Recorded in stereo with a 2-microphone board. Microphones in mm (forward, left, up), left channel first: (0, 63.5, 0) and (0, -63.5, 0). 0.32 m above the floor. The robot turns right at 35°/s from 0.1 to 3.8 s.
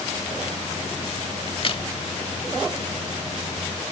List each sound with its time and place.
1.5 s a crack: 45° left (ahead or behind)